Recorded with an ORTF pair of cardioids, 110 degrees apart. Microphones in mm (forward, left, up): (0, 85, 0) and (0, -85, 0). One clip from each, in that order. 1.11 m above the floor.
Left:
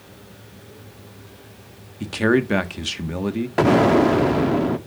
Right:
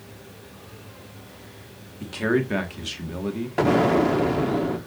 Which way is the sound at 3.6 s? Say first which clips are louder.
Left 4 dB; 25° left.